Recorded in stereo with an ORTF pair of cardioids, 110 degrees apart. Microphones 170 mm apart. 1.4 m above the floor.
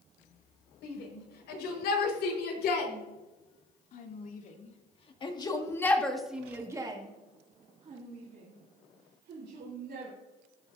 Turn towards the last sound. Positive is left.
turn(degrees=-65)